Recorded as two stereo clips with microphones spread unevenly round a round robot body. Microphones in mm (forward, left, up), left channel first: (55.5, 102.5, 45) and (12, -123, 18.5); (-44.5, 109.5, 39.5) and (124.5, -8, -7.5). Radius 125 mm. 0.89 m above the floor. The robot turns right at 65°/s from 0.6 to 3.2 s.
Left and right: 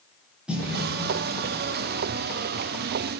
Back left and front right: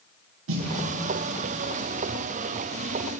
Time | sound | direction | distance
0.5 | a snare drum | 15° right | 0.9 m